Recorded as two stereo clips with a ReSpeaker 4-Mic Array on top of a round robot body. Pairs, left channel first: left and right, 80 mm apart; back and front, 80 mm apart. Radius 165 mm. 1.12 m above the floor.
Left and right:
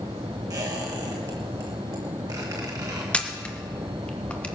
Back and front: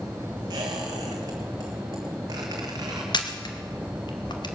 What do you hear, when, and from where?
0.5 s a squeak: 45° right, 1.2 m
3.1 s a camera shutter: 165° left, 1.6 m